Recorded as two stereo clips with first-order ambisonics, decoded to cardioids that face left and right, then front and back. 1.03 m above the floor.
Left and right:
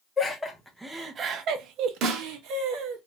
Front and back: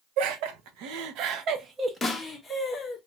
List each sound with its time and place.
0.2 s laughter: 165° left, 0.8 m; by 3.0 s 80° right, 1.0 m
2.0 s a snare drum: 75° right, 0.7 m